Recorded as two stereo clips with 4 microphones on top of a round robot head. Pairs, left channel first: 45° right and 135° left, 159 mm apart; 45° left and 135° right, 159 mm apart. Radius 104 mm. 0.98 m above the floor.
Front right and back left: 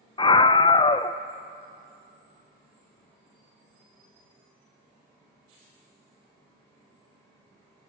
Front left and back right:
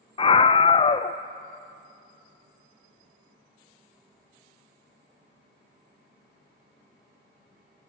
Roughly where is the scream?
Ahead.